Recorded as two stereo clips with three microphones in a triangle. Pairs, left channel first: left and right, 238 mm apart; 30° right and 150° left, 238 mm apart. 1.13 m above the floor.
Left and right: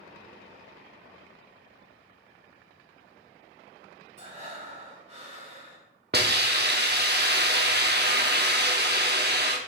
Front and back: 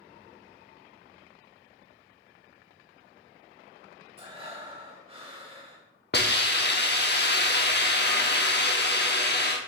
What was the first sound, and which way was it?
Breathing, 145° right.